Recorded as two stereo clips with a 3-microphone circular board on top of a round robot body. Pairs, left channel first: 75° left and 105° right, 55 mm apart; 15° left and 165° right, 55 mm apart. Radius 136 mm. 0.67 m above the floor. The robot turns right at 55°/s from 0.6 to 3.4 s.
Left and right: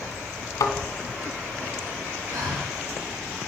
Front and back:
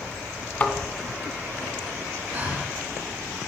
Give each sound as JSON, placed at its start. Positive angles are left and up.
{"t": 0.6, "sound": "a thud", "azimuth_deg": 90, "distance_m": 2.0}
{"t": 2.3, "sound": "breathing", "azimuth_deg": -115, "distance_m": 3.5}